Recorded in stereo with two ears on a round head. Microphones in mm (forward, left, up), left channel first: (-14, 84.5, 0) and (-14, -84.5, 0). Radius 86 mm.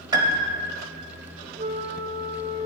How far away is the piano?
About 0.8 m.